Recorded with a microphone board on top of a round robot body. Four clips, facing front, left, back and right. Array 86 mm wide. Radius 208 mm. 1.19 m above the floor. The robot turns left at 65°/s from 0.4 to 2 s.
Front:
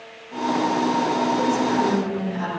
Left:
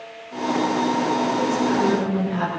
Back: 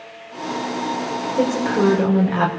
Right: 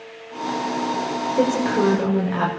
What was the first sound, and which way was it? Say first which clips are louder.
A woman speaking: right 1 dB, back 1 dB; 115° right.